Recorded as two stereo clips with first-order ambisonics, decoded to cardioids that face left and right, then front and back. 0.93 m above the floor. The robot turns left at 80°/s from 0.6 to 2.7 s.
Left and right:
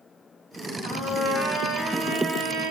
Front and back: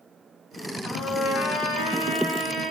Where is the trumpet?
75° left, 4 m; by 2.7 s 75° right, 4 m.